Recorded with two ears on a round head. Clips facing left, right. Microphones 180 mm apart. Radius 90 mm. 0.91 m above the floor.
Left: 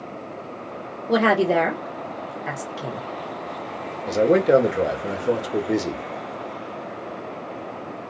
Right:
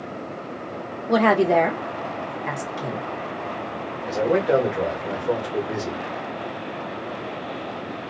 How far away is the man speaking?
About 1.1 m.